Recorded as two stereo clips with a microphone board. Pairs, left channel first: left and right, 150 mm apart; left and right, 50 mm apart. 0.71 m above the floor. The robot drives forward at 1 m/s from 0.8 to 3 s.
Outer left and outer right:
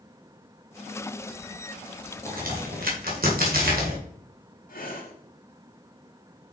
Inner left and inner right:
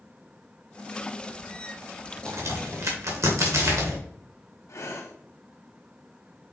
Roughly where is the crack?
Right.